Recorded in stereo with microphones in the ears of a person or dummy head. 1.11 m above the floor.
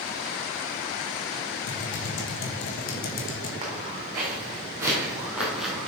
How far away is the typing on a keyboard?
About 1.3 m.